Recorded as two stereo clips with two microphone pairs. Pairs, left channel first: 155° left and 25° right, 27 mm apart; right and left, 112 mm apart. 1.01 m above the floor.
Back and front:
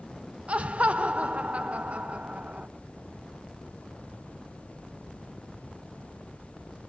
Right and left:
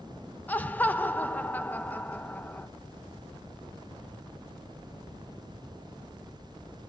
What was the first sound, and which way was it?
Laughter, 20° right.